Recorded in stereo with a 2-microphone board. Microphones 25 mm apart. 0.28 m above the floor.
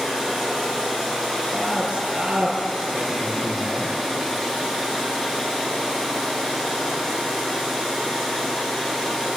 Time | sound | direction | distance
1.5 | a man speaking | 50° right (ahead or behind) | 5.5 m